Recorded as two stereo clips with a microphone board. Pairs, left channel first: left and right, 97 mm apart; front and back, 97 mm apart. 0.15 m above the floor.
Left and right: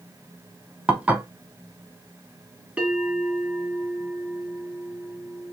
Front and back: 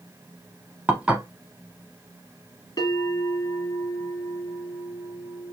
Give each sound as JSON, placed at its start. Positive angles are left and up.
{"t": 0.9, "sound": "dishes clattering", "azimuth_deg": -130, "distance_m": 0.7}
{"t": 2.8, "sound": "a bell", "azimuth_deg": -20, "distance_m": 2.0}